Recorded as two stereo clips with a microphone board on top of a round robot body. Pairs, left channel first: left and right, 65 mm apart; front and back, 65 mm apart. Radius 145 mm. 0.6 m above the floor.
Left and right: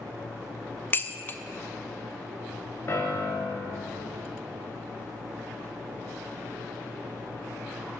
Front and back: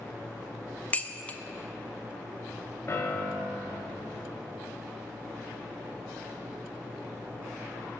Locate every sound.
0.9 s dishes clattering: 50° left, 0.6 m
2.9 s a piano: 45° left, 1.1 m